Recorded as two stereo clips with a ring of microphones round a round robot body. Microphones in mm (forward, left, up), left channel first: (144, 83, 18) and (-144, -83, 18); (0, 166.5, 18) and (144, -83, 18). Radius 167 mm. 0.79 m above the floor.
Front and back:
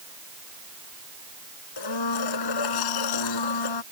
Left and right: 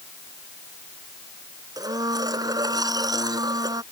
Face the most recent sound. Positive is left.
turn(degrees=15)